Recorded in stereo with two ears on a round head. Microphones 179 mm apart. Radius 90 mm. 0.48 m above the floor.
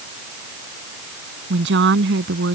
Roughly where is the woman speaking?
Right.